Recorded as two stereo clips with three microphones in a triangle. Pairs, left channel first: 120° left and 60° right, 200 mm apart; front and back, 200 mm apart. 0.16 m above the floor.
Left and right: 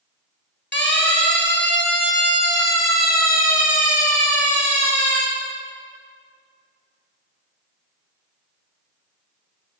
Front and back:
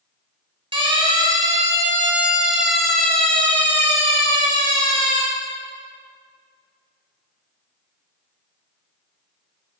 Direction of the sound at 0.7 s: 120° left.